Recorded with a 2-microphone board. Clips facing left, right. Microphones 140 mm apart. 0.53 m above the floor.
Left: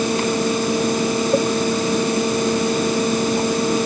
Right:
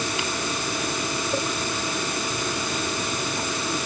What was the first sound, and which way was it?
Only background noise.